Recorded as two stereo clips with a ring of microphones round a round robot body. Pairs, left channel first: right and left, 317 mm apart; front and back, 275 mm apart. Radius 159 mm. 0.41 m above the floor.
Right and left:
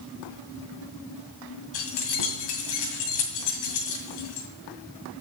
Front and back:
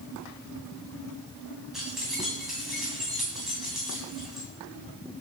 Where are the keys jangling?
90° right, 2 m.